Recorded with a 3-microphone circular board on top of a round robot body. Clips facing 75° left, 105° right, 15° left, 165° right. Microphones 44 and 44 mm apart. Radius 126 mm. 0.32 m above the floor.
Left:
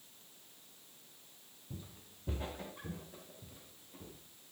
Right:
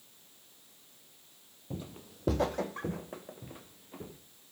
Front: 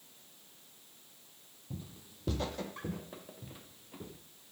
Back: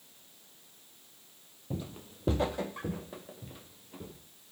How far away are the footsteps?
About 0.7 m.